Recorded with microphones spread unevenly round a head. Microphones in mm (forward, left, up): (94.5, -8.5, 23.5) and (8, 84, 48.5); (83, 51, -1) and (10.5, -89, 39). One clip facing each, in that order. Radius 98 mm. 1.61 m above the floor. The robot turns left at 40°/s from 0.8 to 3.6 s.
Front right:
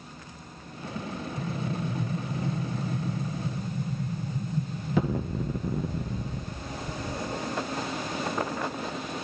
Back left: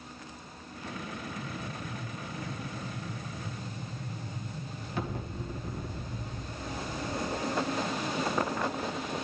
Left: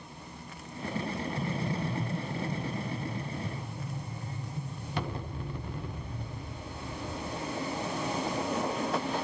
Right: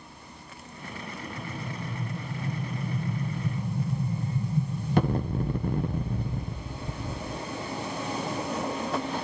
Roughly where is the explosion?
Ahead.